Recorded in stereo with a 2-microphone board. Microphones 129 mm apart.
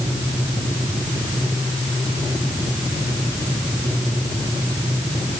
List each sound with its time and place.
Only background noise.